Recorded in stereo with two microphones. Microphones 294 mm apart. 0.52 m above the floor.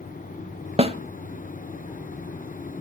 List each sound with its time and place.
0.8 s a snare drum: 20° right (ahead or behind), 1.0 m